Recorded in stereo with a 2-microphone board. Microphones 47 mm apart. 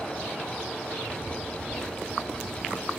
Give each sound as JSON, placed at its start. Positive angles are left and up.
{"t": 0.9, "sound": "footsteps", "side_deg": 35, "distance_m": 2.5}